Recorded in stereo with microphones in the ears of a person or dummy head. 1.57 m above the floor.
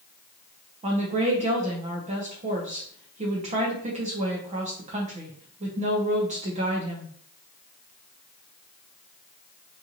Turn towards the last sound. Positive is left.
turn(degrees=-35)  # may be behind; listen again after turning